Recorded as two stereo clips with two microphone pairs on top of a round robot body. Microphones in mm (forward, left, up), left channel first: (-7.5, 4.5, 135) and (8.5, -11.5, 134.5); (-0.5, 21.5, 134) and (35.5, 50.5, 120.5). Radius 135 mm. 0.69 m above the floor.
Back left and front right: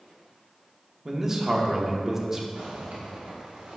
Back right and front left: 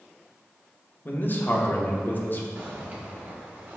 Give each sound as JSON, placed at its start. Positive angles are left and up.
{"t": 1.1, "sound": "a man speaking", "azimuth_deg": -100, "distance_m": 1.2}
{"t": 2.5, "sound": "a zipper", "azimuth_deg": -20, "distance_m": 1.3}